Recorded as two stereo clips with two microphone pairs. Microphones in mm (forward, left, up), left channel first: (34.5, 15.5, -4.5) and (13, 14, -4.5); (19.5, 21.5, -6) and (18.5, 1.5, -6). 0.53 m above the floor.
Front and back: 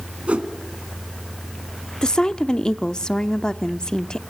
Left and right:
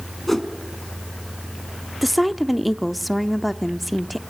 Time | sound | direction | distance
0.3 | a whoosh | 170° left | 1.9 m
2.0 | a woman speaking | 10° right | 0.7 m